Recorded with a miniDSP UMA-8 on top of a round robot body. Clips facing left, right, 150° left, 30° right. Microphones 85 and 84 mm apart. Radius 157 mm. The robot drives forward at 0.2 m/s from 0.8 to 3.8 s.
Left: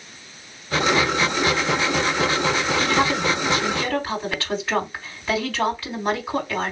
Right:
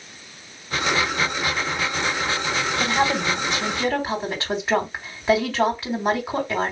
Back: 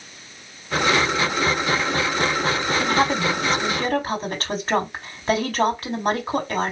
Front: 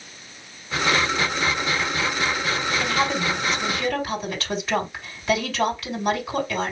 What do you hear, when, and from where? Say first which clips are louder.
2.8 s a woman speaking: right 1 dB, back 4 dB; 155° right, 3 m; by 6.7 s 160° right, 3.5 m